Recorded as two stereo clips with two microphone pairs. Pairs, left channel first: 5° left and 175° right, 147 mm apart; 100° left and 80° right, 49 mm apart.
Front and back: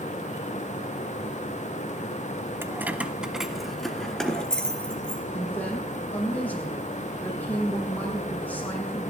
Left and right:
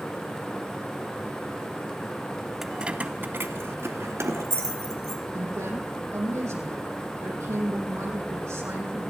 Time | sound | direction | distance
2.6 | keys jangling | 160° right | 0.7 m
5.3 | a woman speaking | 75° right | 6.5 m